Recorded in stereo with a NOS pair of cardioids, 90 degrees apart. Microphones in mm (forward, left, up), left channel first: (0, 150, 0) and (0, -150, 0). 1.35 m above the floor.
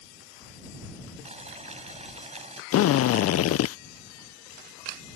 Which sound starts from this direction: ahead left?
A drill, at 2.7 s.